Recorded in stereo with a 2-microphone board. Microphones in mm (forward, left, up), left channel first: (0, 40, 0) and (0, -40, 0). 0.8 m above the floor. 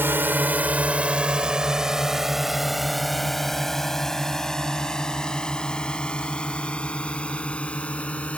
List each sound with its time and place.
0.0 s a drone: 30° right (ahead or behind); by 8.4 s 15° left (ahead or behind)